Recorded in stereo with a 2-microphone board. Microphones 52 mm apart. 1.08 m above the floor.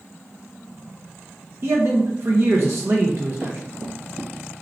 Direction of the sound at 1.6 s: 55° right (ahead or behind).